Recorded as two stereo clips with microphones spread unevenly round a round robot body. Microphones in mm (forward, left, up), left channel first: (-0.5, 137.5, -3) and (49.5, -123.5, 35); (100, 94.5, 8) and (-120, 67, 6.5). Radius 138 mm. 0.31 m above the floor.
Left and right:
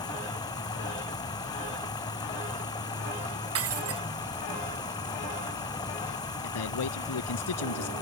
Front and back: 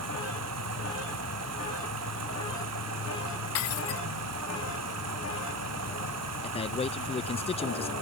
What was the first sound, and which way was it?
Running water, straight behind.